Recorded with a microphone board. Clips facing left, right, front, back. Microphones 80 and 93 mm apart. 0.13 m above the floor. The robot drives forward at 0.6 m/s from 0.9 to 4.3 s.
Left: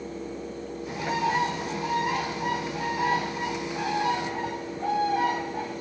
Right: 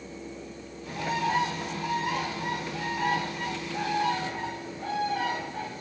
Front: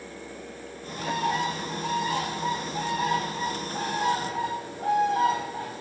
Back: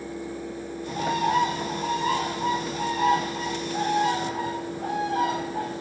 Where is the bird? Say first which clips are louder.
Left 1 dB, back 3 dB; 160° left, 5 m; by 5.8 s 170° left, 7 m.